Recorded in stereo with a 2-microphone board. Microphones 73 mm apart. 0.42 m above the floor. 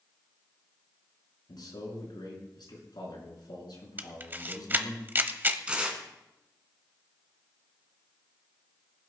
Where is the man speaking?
75° left (ahead or behind), 5.5 m.